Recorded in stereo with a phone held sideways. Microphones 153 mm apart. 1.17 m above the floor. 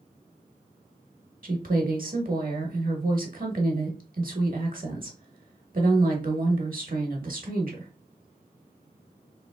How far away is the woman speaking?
About 1.1 m.